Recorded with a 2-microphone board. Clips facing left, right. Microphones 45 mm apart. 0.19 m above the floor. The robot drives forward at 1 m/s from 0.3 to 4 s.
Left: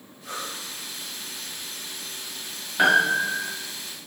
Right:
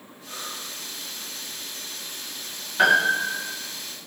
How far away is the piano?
About 8.5 m.